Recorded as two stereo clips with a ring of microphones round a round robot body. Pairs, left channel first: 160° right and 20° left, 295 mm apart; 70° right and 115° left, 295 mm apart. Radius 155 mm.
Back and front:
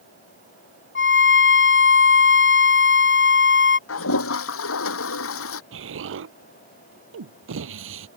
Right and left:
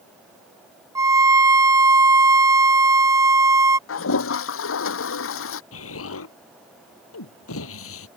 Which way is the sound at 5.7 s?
25° right.